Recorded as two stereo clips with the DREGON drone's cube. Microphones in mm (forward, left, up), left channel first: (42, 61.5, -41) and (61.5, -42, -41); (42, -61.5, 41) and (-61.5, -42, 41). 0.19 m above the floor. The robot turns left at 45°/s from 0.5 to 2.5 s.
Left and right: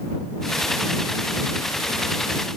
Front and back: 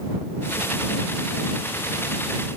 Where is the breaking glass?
I don't hear breaking glass.